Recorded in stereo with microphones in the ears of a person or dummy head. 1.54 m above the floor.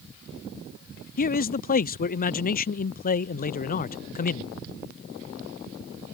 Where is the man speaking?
40° left (ahead or behind).